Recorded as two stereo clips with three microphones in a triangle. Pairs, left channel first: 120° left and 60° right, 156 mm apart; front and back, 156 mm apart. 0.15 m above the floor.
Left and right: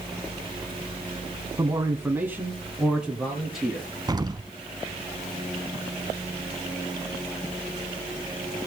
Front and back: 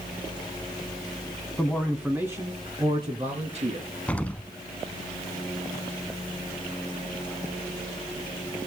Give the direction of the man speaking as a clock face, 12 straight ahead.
2 o'clock.